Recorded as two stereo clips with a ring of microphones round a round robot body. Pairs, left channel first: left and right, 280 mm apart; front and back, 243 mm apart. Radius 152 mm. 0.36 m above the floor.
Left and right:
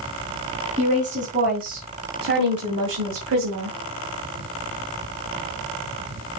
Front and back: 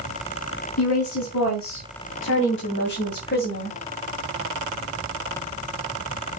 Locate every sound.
0.8 s a woman speaking: 25° right, 3 m; by 3.8 s 55° right, 2.5 m